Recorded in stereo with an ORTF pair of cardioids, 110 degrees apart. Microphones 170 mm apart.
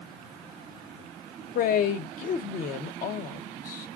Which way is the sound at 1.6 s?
55° left.